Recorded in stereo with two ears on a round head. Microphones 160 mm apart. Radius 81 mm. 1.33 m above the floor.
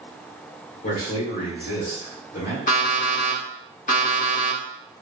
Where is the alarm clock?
45° left (ahead or behind), 0.9 m.